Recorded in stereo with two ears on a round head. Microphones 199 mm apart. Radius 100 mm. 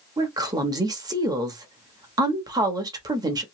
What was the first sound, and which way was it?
A woman speaking, 15° right (ahead or behind).